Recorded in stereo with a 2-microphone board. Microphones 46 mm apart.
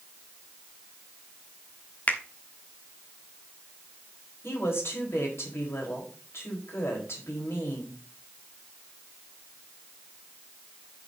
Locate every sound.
2.1 s a finger snap: 40° left (ahead or behind), 1.2 m
4.4 s a woman speaking: 70° left (ahead or behind), 4 m